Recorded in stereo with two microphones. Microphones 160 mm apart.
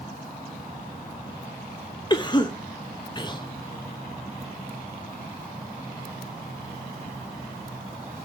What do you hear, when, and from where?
2.1 s a cough: 30° left (ahead or behind), 0.5 m